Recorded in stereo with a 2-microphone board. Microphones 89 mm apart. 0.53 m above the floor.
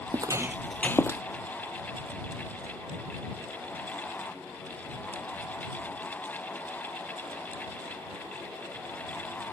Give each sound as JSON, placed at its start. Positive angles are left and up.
{"t": 0.1, "sound": "footsteps", "side_deg": -50}